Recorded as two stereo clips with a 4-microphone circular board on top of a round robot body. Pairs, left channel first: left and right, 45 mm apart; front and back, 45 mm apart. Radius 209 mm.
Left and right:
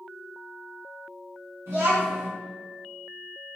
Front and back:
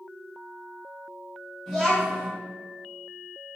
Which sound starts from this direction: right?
A child speaking, at 1.7 s.